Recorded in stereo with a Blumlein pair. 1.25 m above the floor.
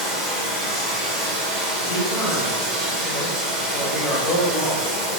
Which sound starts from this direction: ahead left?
A man speaking, at 1.9 s.